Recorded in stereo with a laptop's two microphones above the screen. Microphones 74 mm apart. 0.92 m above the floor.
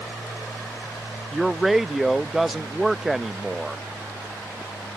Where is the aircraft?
35° left (ahead or behind); by 5.0 s 45° left (ahead or behind).